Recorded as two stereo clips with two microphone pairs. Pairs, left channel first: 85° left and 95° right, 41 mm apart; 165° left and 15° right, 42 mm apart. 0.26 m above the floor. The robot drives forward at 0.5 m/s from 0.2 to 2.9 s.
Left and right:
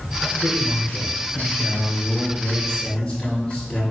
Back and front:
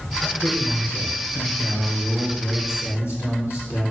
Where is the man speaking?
155° left, 3.5 m; by 3.9 s 165° left, 5 m.